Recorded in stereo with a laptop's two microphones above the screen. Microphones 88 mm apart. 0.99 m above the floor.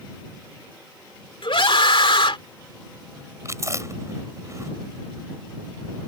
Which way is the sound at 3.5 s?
35° right (ahead or behind).